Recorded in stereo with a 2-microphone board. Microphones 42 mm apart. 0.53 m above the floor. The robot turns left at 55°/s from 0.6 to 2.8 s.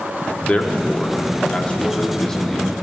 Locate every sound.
0.4 s a man speaking: 25° left (ahead or behind), 0.8 m; by 2.7 s centre (ahead or behind), 0.8 m